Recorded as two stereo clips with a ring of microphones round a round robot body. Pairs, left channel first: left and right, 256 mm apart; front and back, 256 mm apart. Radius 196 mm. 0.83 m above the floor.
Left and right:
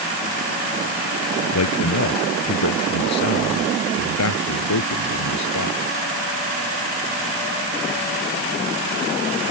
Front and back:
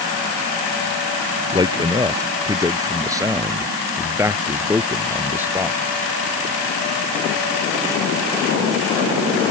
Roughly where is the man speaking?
Left.